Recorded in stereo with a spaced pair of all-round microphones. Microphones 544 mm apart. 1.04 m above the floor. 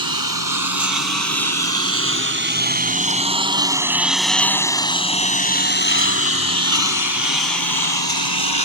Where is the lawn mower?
40° right (ahead or behind); by 8.7 s 50° left (ahead or behind).